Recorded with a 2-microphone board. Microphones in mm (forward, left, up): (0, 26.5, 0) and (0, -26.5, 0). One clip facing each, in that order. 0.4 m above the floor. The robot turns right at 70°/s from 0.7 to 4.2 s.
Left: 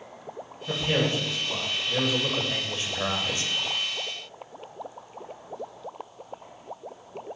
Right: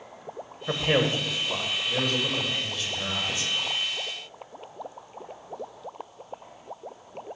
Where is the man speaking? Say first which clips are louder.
Right 2 dB; 85° right, 1.7 m; by 3.5 s 110° left, 1.7 m.